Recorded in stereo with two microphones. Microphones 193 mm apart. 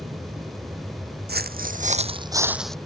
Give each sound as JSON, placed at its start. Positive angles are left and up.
{"t": 0.0, "sound": "an aircraft", "side_deg": -10}
{"t": 1.3, "sound": "footsteps", "side_deg": -55}